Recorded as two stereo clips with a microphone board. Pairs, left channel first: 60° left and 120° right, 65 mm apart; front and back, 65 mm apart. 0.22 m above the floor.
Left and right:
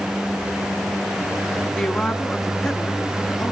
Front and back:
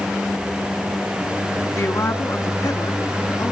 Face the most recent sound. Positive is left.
turn(degrees=-25)